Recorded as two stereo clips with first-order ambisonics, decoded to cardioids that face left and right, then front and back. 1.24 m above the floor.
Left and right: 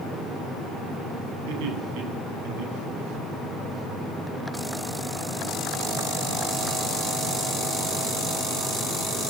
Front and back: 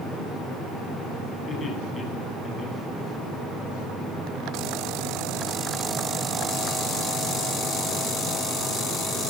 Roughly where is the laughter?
Right.